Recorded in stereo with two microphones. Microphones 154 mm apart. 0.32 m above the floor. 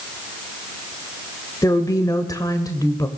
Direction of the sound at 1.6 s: 25° left (ahead or behind).